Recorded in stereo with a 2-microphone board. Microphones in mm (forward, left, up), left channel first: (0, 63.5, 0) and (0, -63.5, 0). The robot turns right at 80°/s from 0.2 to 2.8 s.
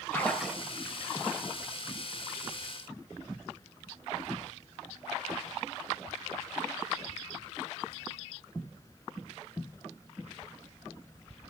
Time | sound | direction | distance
0.1 | a splash | 165° left | 2 m